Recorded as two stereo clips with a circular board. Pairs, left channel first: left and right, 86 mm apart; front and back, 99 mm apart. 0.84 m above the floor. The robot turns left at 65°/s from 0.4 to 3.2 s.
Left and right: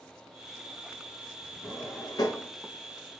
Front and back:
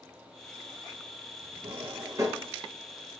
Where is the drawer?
165° left, 0.9 m; by 2.5 s 110° left, 0.9 m.